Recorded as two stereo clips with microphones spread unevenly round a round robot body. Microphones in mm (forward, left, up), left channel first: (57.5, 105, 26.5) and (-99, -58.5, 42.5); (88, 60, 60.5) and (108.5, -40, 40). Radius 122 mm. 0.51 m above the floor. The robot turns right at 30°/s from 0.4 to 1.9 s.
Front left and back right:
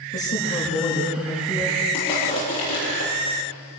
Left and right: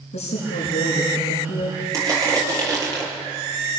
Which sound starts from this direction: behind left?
A woman speaking, at 0.1 s.